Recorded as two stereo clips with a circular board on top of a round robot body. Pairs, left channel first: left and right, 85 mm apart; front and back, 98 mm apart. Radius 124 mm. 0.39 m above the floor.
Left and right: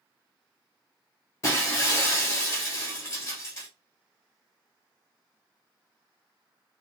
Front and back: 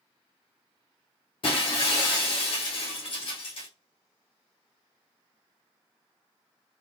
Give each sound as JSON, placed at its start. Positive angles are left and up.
{"t": 1.4, "sound": "breaking glass", "azimuth_deg": 35, "distance_m": 1.2}